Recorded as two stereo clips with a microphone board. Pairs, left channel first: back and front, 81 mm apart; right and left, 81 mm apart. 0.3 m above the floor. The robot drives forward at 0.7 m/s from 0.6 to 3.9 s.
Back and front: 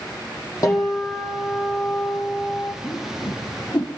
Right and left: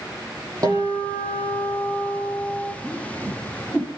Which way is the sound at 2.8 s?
155° left.